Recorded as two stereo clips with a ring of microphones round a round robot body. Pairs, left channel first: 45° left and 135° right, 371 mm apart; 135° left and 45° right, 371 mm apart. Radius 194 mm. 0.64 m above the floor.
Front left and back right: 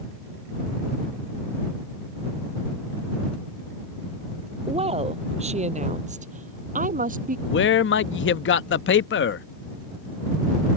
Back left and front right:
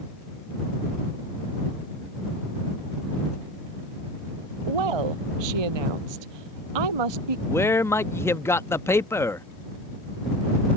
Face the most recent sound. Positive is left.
turn(degrees=60)